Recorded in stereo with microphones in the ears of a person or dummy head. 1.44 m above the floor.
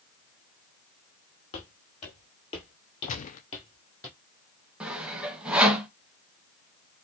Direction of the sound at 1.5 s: 35° left (ahead or behind).